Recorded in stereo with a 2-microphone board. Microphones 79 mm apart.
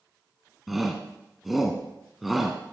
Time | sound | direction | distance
0.7 | a shout | centre (ahead or behind) | 1.3 m